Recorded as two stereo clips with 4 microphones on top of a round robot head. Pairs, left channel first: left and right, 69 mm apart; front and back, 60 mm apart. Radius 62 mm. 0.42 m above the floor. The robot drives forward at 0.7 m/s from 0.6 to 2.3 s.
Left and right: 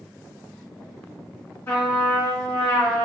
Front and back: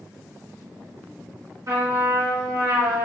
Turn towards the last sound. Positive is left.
turn(degrees=160)